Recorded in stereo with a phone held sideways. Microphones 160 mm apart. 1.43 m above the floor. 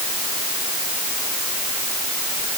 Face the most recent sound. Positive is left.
No sound to turn to.